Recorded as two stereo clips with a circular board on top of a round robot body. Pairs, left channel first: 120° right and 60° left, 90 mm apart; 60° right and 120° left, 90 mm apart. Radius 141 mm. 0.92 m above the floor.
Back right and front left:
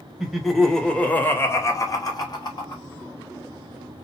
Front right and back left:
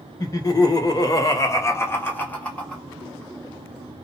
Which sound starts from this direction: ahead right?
Laughter, at 0.2 s.